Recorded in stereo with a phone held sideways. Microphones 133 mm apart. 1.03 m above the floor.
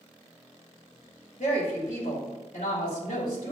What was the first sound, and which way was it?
A woman speaking, 70° left (ahead or behind).